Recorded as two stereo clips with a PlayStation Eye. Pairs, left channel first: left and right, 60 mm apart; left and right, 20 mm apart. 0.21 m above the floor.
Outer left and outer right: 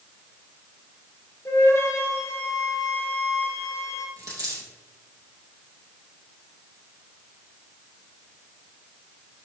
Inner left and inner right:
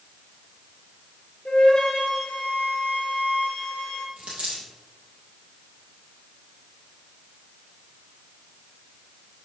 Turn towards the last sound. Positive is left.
turn(degrees=-75)  # may be behind; listen again after turning